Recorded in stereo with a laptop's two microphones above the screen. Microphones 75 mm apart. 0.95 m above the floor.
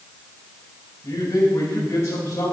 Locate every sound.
1.0 s a man speaking: 40° left (ahead or behind), 4.5 m